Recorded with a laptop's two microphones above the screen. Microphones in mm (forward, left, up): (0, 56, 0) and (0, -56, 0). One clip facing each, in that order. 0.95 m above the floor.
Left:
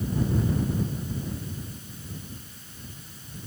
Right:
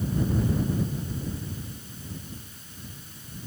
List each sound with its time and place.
Only background noise.